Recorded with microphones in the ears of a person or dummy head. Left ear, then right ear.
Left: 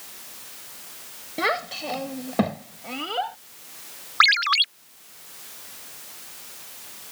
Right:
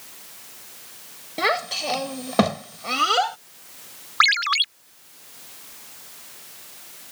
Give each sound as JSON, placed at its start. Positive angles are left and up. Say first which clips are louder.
{"t": 1.4, "sound": "a child speaking", "louder": "right 2 dB", "side_deg": -10}
{"t": 4.2, "sound": "a ringtone", "louder": "left 1 dB", "side_deg": -5}